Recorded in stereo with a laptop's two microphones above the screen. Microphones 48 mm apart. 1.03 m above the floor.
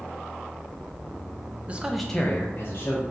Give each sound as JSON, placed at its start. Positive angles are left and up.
{"t": 1.7, "sound": "a man speaking", "side_deg": -25, "distance_m": 0.6}